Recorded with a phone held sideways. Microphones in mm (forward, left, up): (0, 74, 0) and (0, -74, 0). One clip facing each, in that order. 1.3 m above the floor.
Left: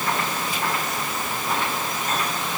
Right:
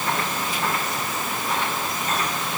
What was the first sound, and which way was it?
Only background noise.